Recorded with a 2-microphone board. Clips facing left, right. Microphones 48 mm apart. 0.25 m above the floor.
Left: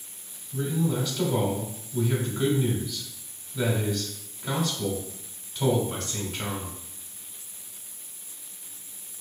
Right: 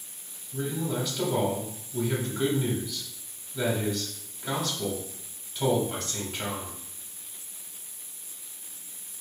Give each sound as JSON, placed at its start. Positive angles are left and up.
{"t": 0.5, "sound": "a man speaking", "side_deg": -5, "distance_m": 1.2}